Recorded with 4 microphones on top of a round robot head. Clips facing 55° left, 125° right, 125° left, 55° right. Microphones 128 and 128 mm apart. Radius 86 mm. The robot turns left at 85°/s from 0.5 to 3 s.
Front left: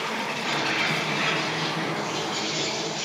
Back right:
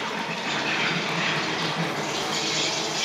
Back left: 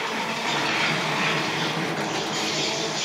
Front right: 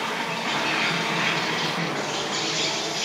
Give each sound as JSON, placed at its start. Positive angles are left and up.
{"t": 0.0, "sound": "an insect", "azimuth_deg": 75, "distance_m": 9.0}